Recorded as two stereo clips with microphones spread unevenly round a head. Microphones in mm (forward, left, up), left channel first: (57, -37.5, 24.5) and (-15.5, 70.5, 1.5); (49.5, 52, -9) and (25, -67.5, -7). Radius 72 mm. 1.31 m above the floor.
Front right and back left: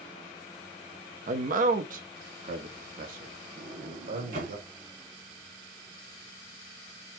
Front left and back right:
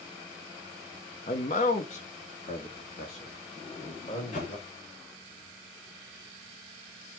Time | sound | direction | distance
1.3 | a man speaking | 120° left | 0.9 m
3.6 | a sliding door | 110° left | 2.5 m